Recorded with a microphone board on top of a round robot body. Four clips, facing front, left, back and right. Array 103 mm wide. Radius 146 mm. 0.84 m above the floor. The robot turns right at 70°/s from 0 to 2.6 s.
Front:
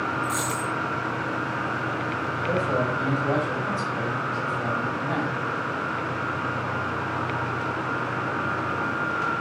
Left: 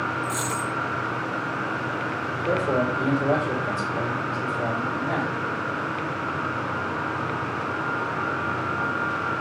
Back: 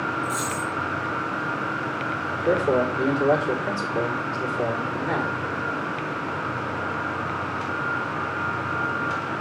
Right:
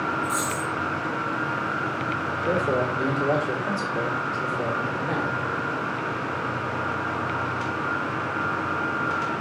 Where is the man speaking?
175° left, 3.5 m; by 5.4 s 170° right, 3.5 m.